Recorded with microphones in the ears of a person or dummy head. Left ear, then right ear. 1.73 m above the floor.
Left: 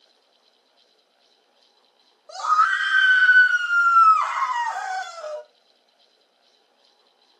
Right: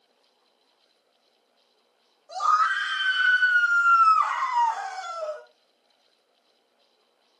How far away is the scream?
About 5 m.